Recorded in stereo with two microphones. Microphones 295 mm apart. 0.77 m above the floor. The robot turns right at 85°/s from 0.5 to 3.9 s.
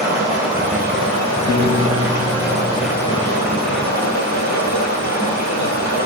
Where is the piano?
125° right, 4 m; by 3.1 s 10° left, 4 m.